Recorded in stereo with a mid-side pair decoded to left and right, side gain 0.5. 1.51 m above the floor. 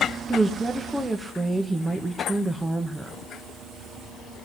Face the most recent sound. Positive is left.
turn(degrees=-15)